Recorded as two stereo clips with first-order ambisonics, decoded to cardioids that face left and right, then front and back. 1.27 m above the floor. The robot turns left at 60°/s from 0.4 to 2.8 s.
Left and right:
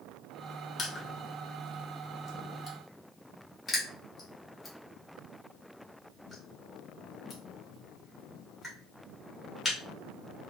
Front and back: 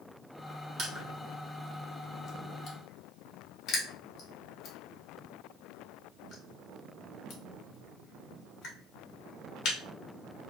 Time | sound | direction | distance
0.8 | crushing | 140° left | 0.9 m